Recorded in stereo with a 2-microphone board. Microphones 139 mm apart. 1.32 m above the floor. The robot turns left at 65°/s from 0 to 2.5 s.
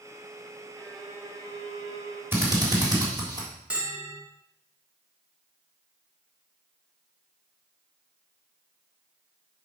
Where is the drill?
15° right (ahead or behind), 3.5 m; by 3.5 s 30° right (ahead or behind), 3.5 m.